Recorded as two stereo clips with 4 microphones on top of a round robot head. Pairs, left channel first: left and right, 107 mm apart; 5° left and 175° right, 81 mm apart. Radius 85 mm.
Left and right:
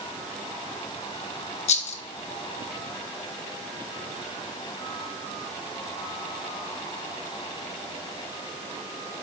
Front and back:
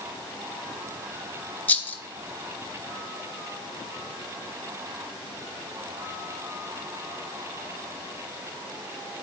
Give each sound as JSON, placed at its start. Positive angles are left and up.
{"t": 1.7, "sound": "a rattle", "azimuth_deg": 75, "distance_m": 0.9}